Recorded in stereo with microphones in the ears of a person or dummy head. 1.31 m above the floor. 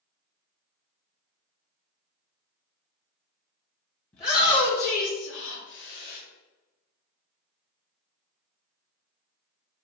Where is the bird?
I don't hear a bird.